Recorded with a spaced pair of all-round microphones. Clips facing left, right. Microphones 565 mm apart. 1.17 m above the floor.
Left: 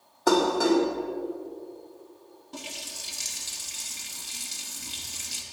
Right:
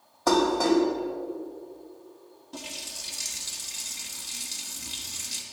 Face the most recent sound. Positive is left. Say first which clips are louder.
# even
turn(degrees=-5)  # may be behind; listen again after turning